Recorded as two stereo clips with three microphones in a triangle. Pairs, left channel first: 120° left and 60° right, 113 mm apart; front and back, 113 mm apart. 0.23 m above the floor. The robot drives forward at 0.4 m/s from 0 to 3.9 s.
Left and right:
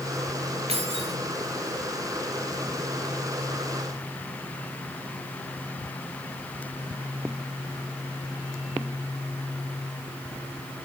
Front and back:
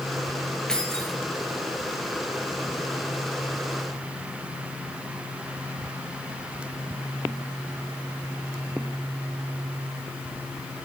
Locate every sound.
0.7 s keys jangling: 85° right, 3.5 m